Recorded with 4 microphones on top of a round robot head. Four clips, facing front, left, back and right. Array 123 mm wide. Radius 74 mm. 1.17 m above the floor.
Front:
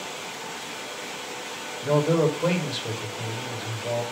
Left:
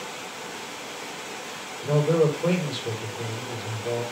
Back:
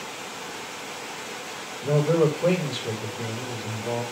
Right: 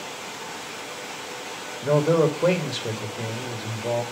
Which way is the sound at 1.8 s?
90° right.